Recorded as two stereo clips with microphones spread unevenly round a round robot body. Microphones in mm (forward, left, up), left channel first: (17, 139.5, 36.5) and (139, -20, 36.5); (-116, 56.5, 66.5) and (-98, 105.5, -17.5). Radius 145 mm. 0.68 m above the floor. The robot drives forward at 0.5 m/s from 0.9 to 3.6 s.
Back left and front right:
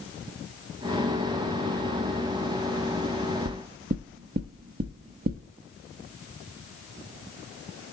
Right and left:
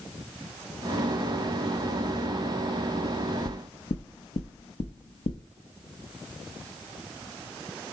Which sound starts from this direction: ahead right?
Knocking, at 3.5 s.